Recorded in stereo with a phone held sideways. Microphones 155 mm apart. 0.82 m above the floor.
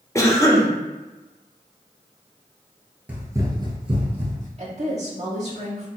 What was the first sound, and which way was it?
A cough, 20° left (ahead or behind).